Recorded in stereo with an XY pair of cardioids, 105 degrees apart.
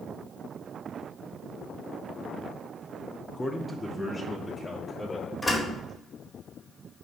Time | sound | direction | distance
3.3 | a man speaking | 5° left | 0.7 m
5.4 | a door slam | 20° left | 1.9 m